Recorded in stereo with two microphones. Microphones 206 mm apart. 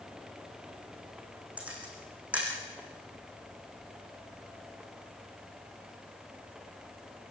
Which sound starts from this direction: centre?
A camera shutter, at 1.6 s.